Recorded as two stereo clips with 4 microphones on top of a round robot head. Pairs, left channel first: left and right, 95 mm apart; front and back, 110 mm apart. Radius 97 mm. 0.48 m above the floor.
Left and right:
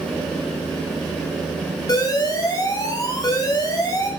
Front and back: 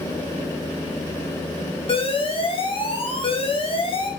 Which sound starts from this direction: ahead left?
An alarm, at 1.9 s.